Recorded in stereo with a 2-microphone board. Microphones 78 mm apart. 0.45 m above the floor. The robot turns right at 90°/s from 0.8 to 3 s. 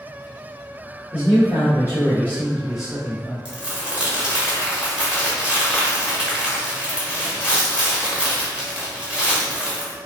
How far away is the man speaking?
About 1.2 m.